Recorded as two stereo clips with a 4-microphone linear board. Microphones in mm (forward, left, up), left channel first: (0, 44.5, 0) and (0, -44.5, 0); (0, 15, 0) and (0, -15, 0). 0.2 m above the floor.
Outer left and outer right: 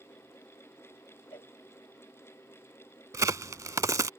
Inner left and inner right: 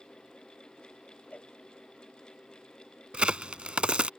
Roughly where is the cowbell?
Left.